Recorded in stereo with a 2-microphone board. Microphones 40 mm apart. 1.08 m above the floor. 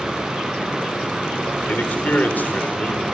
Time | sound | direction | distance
1.7 | a man speaking | 50° left (ahead or behind) | 4 m